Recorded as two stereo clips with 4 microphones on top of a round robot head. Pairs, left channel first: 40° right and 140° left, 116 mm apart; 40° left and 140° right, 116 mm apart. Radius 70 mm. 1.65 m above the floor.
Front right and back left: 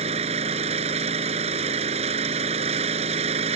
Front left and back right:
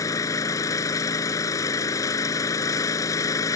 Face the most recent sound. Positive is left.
turn(degrees=100)